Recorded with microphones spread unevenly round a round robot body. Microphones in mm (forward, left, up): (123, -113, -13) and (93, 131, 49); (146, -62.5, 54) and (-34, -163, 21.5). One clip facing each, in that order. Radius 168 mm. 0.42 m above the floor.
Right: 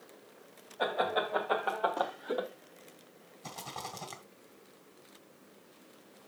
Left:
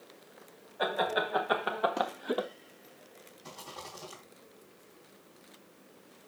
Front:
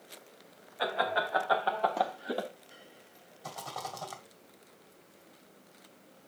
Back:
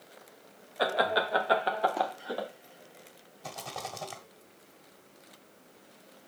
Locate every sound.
0.8 s laughter: 165° right, 2.5 m; by 2.5 s 70° left, 1.4 m
3.4 s a rattle: 95° right, 2.5 m